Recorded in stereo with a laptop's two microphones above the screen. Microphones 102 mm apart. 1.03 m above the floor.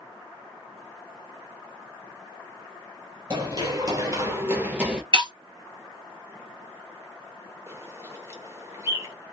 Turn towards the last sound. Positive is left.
turn(degrees=-30)  # may be behind; listen again after turning